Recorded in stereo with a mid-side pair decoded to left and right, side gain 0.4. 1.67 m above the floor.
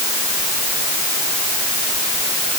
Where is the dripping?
I don't hear dripping.